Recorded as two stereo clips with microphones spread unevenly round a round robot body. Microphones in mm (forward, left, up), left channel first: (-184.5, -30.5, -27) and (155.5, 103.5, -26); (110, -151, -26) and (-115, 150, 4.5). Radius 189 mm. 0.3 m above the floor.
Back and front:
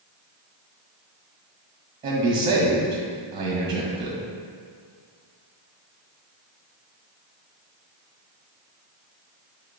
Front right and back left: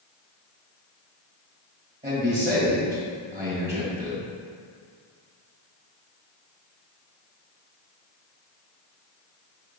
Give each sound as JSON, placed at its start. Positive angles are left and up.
{"t": 2.0, "sound": "a man speaking", "azimuth_deg": 80, "distance_m": 1.3}